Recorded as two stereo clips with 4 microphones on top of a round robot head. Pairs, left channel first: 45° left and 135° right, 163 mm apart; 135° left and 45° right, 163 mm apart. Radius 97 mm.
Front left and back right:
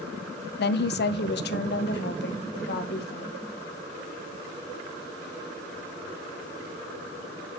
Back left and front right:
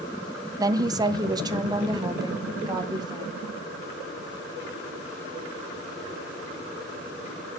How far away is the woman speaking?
About 0.6 m.